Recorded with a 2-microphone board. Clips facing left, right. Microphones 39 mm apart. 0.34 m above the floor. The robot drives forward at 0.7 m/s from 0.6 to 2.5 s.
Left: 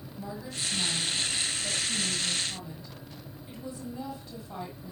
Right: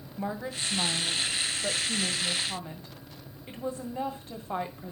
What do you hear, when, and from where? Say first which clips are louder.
0.2 s a woman speaking: right 4 dB; 45° right (ahead or behind), 1.8 m